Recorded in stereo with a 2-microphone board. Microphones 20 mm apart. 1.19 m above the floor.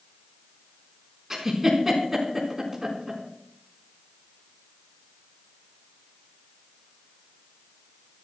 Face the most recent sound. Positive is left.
turn(degrees=-15)  # may be behind; listen again after turning